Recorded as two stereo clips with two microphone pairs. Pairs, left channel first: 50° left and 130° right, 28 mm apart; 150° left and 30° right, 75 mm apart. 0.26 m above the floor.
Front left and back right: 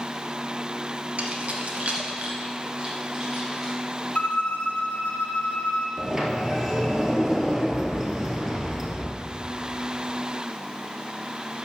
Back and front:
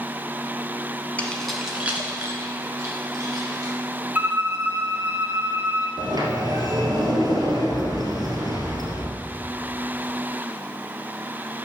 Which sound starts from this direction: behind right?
Keys jangling, at 1.2 s.